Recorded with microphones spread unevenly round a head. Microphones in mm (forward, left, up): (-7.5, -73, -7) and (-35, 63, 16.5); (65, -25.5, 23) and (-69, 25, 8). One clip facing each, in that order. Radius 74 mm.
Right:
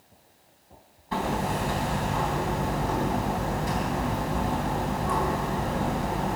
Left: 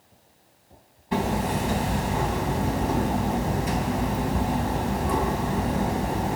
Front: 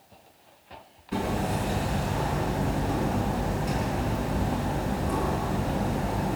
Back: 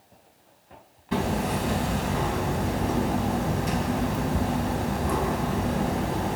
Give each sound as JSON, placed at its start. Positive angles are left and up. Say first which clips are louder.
{"t": 1.1, "sound": "hammering", "louder": "left 2 dB, back 2 dB", "azimuth_deg": 165, "distance_m": 3.5}